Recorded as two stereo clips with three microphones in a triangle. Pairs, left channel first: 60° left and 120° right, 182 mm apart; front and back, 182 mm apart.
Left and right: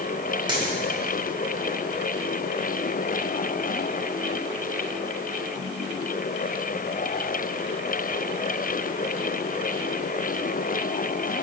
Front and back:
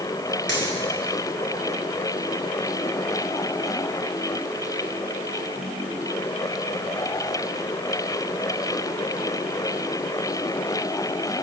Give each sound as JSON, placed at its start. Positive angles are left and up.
{"t": 0.5, "sound": "a dropped coin", "azimuth_deg": 175, "distance_m": 2.5}